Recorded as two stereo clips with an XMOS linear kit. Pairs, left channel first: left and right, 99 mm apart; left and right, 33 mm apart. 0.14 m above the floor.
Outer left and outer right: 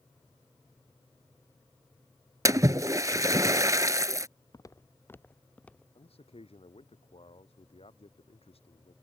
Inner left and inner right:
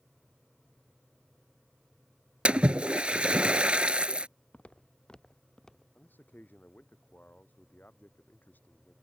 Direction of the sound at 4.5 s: 40° left (ahead or behind).